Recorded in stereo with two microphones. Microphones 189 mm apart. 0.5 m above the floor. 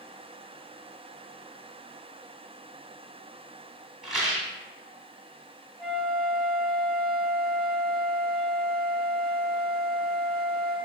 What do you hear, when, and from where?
4.0 s a rattle: centre (ahead or behind), 1.0 m
5.8 s a flute: centre (ahead or behind), 1.1 m